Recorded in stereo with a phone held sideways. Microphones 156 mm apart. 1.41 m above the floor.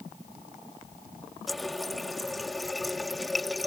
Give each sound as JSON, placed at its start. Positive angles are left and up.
{"t": 1.5, "sound": "a running tap", "side_deg": 0}